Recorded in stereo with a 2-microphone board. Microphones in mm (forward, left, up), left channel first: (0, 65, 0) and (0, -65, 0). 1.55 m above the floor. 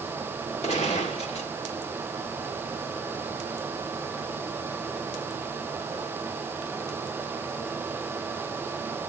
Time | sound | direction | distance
0.6 | a gunshot | 60° left (ahead or behind) | 2.5 m